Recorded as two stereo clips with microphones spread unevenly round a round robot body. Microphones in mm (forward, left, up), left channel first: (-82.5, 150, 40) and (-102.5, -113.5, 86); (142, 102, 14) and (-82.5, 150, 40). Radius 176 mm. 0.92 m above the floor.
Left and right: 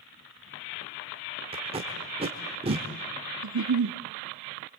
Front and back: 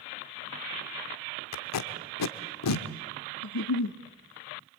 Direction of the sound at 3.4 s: 55° right.